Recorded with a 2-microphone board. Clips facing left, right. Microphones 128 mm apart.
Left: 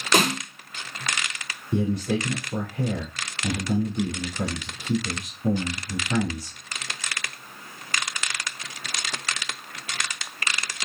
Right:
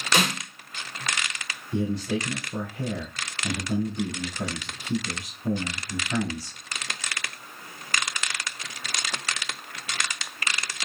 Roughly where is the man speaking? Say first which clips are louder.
Left 2 dB; left.